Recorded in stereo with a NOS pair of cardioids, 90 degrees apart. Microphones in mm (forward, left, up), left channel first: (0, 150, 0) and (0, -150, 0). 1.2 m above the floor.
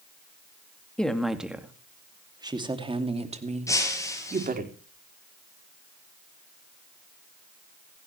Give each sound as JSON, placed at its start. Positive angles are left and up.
{"t": 1.0, "sound": "a woman speaking", "azimuth_deg": 5, "distance_m": 2.5}
{"t": 3.7, "sound": "breaking glass", "azimuth_deg": 10, "distance_m": 6.5}